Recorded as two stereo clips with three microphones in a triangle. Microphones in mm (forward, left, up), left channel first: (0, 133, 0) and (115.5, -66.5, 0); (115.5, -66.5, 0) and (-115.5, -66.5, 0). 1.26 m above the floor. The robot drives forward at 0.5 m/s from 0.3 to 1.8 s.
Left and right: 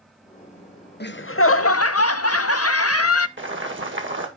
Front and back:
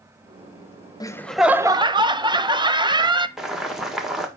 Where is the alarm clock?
No alarm clock in this recording.